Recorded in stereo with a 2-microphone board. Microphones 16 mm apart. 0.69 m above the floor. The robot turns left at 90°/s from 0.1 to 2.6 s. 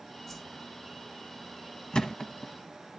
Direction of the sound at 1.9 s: 65° left (ahead or behind).